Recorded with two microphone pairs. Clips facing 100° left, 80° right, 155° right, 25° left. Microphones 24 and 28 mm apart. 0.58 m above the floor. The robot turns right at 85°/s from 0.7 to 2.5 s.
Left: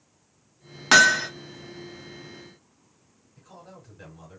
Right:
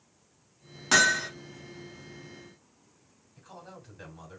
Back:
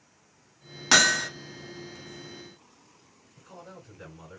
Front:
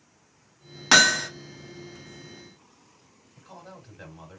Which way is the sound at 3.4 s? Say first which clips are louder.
Even, front 1 dB; 10° right.